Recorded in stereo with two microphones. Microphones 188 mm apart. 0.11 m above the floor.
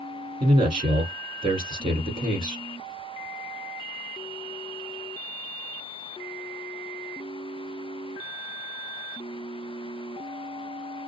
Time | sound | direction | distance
0.4 | a man speaking | 25° right (ahead or behind) | 1.5 m